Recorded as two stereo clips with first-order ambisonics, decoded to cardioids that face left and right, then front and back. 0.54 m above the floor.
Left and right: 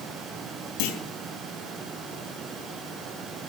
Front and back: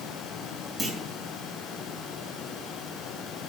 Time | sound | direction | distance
0.8 | a clunk | 95° left | 4 m